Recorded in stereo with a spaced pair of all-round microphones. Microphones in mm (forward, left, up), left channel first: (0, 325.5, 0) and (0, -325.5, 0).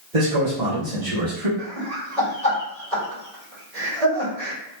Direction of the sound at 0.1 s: 55° right (ahead or behind).